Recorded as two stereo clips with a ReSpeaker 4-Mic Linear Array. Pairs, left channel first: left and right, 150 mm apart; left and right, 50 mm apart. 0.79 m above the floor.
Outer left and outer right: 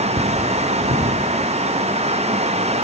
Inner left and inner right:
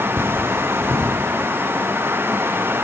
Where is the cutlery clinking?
55° right (ahead or behind), 6.5 m.